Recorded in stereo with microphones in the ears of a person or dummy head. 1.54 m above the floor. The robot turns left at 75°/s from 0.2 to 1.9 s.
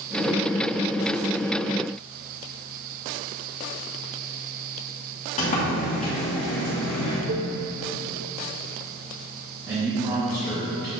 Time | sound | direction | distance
5.4 | a sliding door | 40° left (ahead or behind) | 1.5 m
7.3 | a cowbell | 55° right (ahead or behind) | 1.1 m
9.7 | a man speaking | 15° right (ahead or behind) | 2 m